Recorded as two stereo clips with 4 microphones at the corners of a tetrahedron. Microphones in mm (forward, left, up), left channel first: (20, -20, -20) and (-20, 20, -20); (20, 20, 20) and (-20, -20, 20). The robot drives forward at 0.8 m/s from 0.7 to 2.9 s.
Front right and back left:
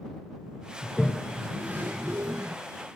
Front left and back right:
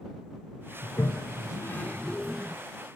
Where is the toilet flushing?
30° left, 0.9 m; by 2.6 s 150° left, 0.8 m.